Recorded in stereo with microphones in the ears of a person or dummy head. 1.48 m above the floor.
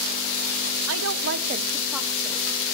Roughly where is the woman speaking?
Right.